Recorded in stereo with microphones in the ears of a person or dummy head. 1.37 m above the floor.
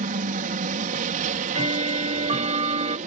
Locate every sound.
0.0 s a helicopter: 40° right (ahead or behind)
1.2 s ticking: 30° right (ahead or behind)